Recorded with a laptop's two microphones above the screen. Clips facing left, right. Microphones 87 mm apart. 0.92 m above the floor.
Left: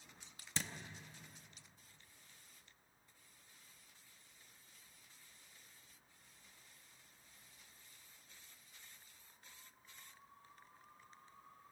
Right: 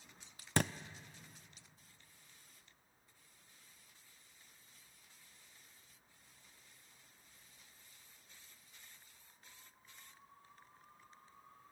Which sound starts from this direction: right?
A thud, at 0.6 s.